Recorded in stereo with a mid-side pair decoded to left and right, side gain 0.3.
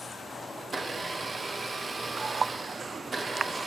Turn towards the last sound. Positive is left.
turn(degrees=-50)